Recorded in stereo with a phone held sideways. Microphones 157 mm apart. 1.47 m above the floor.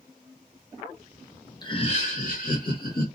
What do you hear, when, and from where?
1.6 s laughter: 25° left (ahead or behind), 0.6 m; by 3.0 s 65° left (ahead or behind), 1.4 m